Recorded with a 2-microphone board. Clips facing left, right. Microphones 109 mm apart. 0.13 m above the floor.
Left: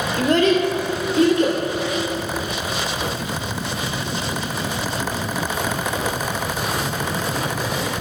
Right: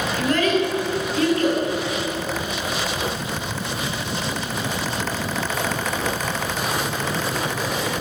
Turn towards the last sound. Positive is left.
turn(degrees=20)  # may be behind; listen again after turning